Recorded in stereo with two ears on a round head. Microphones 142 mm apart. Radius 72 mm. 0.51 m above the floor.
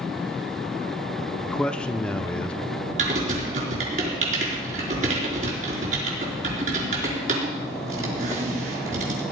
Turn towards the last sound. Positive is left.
turn(degrees=-45)  # may be behind; listen again after turning